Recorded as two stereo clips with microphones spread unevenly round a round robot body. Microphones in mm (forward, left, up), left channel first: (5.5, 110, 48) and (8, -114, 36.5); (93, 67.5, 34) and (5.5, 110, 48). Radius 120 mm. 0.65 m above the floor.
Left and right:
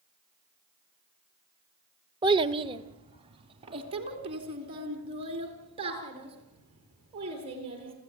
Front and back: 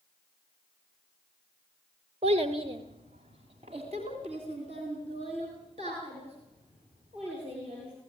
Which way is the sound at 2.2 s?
160° right.